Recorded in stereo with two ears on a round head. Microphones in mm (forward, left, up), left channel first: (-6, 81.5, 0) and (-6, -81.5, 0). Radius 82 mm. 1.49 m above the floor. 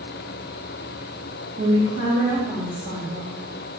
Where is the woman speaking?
25° right (ahead or behind), 3.5 m.